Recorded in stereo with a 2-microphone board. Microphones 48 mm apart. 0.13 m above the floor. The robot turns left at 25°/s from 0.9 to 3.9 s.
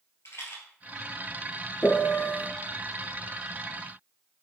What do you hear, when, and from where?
0.2 s a rattle: 65° left (ahead or behind), 2 m
1.8 s a piano: 40° left (ahead or behind), 0.5 m; by 2.5 s 35° left (ahead or behind), 0.5 m